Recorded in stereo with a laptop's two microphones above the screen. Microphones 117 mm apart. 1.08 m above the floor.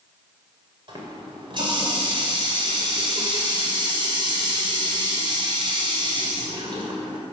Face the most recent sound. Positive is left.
turn(degrees=-45)  # may be behind; listen again after turning